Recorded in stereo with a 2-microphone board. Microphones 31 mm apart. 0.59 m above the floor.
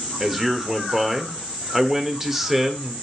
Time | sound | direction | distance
0.2 | a man speaking | 10° right (ahead or behind) | 1.6 m